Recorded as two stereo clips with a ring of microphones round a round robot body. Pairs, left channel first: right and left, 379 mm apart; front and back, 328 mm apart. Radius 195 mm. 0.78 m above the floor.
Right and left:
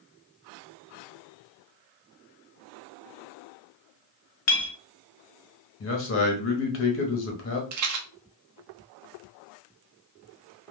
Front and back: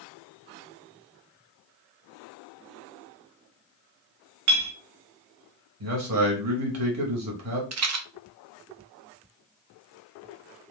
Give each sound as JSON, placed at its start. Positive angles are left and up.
{"t": 4.5, "sound": "a clink", "azimuth_deg": -140, "distance_m": 0.8}
{"t": 5.8, "sound": "a man speaking", "azimuth_deg": -145, "distance_m": 1.2}
{"t": 7.7, "sound": "a rattle", "azimuth_deg": 135, "distance_m": 0.8}